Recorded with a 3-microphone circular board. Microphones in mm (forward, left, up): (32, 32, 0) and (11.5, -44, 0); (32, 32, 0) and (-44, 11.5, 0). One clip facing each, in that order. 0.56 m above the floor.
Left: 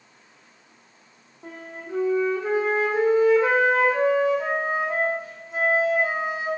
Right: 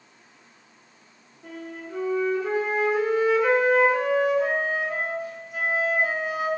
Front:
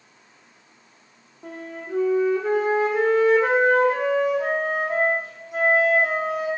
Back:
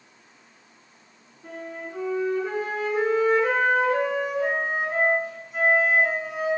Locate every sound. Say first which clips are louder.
1.4 s a flute: right 1 dB, front 1 dB; 15° left, 0.5 m